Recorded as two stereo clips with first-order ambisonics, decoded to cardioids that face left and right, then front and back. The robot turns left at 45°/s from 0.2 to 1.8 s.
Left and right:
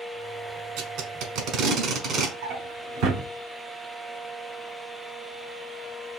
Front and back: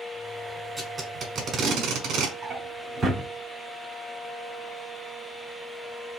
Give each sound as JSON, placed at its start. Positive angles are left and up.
{"t": 0.8, "sound": "tape being pulled", "azimuth_deg": -90, "distance_m": 1.2}
{"t": 2.4, "sound": "a drawer", "azimuth_deg": -110, "distance_m": 0.8}